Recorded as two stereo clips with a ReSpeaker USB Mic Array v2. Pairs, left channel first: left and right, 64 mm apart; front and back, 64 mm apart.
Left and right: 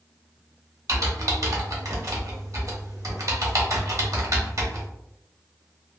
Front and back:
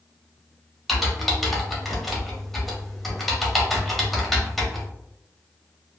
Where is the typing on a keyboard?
90° right, 0.9 m.